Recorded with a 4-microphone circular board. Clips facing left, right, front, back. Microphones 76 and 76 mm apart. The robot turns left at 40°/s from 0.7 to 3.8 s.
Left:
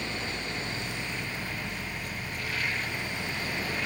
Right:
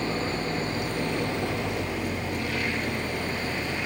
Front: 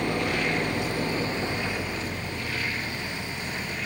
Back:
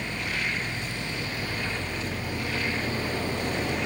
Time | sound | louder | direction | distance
0.0 | an engine running | right 7 dB, front 5 dB | 35° right | ?